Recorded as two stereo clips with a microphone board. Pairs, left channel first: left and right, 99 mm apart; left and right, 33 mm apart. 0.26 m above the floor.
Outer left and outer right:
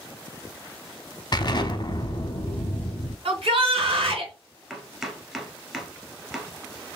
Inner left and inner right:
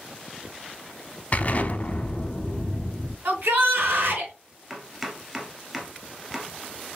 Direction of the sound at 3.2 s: 60° right (ahead or behind).